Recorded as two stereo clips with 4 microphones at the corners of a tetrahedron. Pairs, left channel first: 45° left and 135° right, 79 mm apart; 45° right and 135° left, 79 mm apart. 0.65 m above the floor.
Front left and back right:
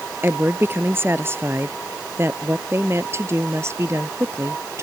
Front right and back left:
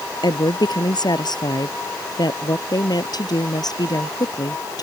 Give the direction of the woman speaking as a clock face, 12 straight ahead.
2 o'clock.